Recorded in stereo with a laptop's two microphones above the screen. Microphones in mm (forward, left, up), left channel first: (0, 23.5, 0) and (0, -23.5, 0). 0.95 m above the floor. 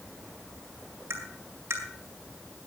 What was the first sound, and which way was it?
Tapping, 65° right (ahead or behind).